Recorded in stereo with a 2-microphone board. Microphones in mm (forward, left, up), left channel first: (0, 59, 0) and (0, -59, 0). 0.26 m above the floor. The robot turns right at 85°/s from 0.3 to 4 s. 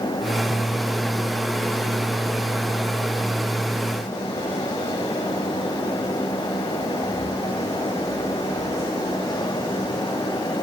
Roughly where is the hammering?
No hammering in this recording.